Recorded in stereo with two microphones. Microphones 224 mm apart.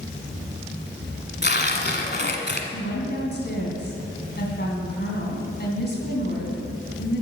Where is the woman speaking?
50° left (ahead or behind), 2.5 m.